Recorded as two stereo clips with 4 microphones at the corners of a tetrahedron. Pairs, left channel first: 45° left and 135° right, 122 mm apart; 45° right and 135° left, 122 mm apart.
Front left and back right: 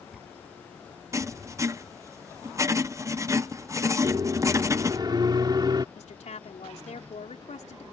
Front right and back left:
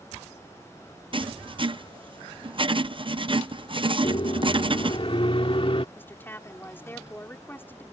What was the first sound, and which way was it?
Writing, 170° left.